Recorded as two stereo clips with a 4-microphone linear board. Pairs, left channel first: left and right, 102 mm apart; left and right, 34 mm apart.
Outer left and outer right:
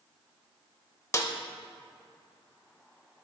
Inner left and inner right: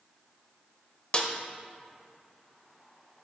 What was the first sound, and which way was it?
A snare drum, 30° left (ahead or behind).